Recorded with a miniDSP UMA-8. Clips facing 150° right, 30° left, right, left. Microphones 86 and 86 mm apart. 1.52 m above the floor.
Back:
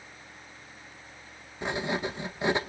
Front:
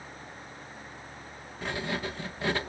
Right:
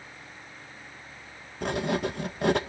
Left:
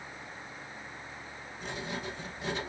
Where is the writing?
80° right, 1.0 m.